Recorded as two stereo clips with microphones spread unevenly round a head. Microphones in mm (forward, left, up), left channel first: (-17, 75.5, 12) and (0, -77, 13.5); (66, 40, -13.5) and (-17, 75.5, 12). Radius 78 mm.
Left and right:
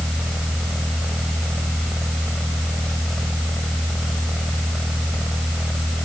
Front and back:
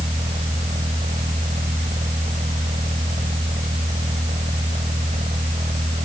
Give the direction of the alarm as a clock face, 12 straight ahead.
I don't hear an alarm.